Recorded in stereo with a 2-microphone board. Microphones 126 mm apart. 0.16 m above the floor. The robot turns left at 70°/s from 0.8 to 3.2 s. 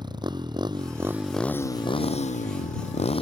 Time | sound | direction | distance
0.0 | a motorcycle | 145° right | ?